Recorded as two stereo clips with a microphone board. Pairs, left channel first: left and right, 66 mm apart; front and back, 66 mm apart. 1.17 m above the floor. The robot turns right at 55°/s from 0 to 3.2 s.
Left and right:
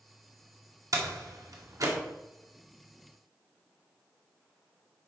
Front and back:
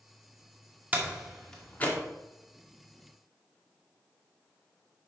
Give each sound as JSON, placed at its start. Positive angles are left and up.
{"t": 0.9, "sound": "a door slam", "azimuth_deg": -115, "distance_m": 2.0}